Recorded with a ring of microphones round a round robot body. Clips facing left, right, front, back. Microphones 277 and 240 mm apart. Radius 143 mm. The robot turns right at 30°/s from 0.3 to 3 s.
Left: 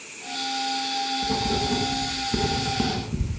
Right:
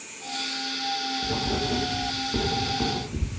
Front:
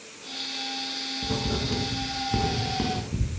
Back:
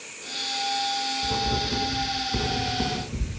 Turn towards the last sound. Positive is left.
turn(degrees=60)